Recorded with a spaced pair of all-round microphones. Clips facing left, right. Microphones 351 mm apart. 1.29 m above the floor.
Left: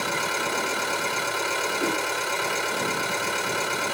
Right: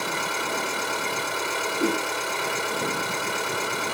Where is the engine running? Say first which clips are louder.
Left 1 dB; 40° right (ahead or behind), 4 m.